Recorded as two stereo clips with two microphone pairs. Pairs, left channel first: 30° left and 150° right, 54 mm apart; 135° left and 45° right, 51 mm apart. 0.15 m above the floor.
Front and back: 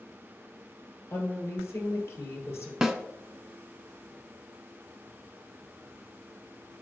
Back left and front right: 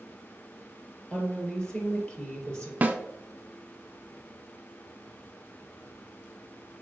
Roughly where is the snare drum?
Right.